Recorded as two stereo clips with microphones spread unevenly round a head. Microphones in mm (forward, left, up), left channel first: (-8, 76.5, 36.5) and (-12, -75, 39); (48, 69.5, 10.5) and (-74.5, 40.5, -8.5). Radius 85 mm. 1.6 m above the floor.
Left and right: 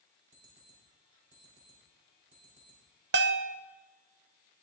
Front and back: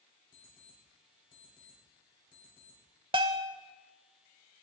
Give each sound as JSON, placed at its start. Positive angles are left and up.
{"t": 0.3, "sound": "an alarm clock", "azimuth_deg": -45, "distance_m": 4.5}
{"t": 3.1, "sound": "a bell", "azimuth_deg": -100, "distance_m": 0.6}